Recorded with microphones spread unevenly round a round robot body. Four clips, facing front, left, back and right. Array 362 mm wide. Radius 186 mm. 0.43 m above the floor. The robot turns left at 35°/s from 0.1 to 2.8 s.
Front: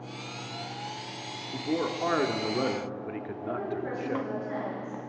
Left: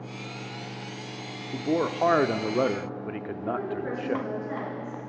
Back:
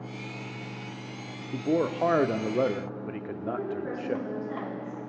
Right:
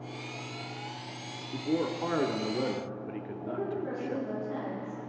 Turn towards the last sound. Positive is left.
turn(degrees=95)